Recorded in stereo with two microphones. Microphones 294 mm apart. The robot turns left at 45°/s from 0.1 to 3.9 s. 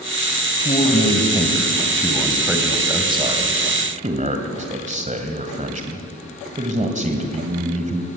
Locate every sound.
0.6 s a man speaking: 25° left (ahead or behind), 1.7 m; by 8.1 s 25° right (ahead or behind), 1.7 m